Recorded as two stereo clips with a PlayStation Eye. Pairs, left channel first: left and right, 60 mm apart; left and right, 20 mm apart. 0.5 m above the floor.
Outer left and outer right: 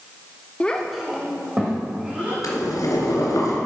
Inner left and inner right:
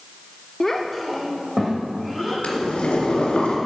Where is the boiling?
90° left, 3 m.